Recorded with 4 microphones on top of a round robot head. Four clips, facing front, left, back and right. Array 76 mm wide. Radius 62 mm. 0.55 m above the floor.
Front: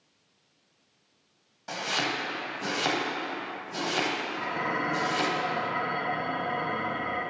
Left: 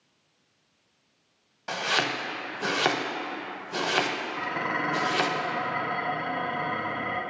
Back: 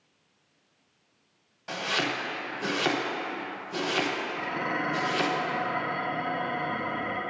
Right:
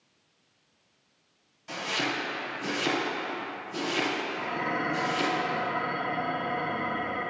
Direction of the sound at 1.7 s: 80° left.